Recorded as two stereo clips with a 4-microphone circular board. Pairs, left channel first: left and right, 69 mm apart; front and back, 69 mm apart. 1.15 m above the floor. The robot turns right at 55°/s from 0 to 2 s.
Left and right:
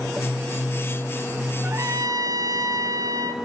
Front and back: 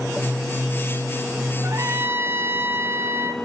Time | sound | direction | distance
1.6 | a trumpet | 145° right | 0.9 m